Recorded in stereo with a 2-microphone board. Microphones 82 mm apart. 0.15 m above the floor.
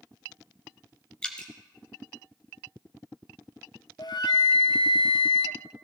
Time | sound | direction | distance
1.2 | dripping | 15° left (ahead or behind) | 1.6 m
4.0 | a flute | 65° left (ahead or behind) | 0.6 m